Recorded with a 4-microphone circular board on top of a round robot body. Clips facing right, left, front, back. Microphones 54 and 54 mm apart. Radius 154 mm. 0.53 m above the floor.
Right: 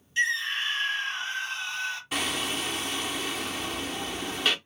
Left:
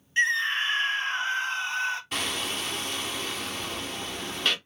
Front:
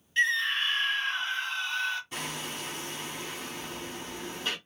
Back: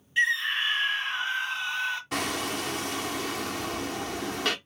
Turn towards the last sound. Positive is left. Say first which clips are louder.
# right 1 dB, back 7 dB
turn(degrees=-175)